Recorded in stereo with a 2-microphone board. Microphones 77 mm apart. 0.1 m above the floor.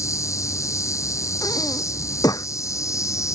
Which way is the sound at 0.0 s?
40° left (ahead or behind).